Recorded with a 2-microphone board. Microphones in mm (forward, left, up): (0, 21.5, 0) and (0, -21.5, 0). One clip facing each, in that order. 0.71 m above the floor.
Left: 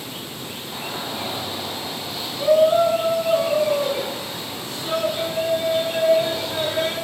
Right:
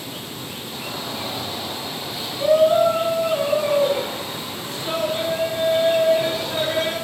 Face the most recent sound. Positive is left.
turn(degrees=-40)  # may be behind; listen again after turning